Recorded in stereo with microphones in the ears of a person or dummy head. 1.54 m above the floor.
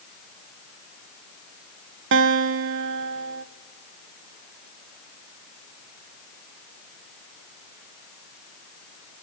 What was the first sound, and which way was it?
A guitar, 60° right (ahead or behind).